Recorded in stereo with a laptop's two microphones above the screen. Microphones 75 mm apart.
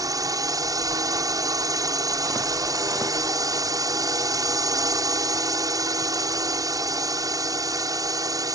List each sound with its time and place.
0.0 s a drone: 55° right (ahead or behind)